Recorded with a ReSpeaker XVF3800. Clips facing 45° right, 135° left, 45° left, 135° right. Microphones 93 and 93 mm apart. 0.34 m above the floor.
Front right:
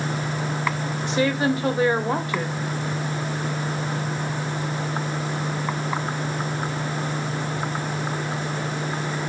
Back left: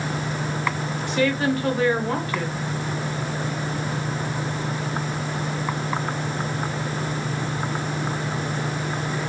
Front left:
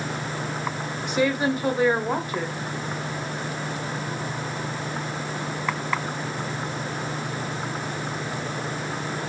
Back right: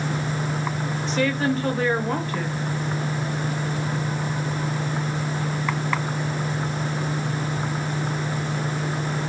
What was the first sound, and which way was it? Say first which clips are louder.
A woman speaking: even, front left 1 dB; 15° right.